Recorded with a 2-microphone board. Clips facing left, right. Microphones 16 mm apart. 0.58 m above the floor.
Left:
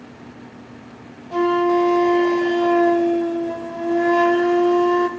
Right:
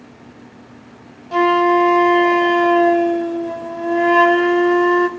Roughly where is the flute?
Right.